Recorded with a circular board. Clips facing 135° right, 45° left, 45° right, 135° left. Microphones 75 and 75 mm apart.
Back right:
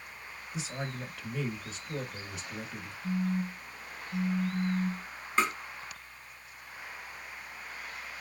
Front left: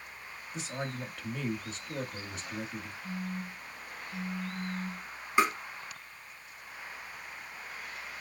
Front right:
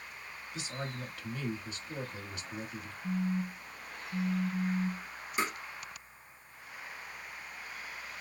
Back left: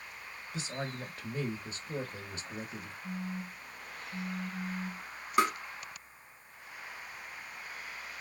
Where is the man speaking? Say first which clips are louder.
Front left 1 dB, back left 2 dB; 135° left, 1.3 m.